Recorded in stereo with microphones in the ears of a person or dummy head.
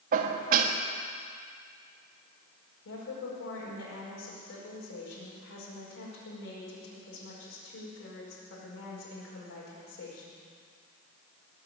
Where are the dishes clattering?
50° right (ahead or behind), 1.3 m.